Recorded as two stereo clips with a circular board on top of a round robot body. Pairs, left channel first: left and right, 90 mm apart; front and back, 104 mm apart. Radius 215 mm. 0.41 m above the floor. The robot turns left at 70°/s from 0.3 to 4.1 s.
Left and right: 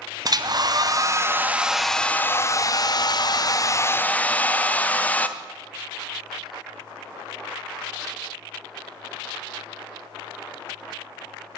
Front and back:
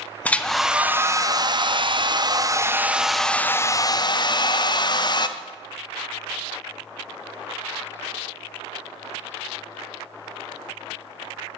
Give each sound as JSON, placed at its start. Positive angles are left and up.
{"t": 0.2, "sound": "a hair dryer", "azimuth_deg": -70, "distance_m": 0.6}